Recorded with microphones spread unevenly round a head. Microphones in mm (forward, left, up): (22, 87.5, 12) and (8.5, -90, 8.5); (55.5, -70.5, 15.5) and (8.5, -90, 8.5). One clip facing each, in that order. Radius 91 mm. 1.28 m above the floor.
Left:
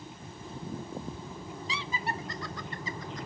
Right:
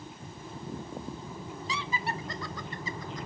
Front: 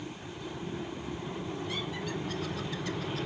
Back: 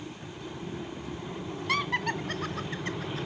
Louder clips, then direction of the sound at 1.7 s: Right 1 dB, back 7 dB; 145° right.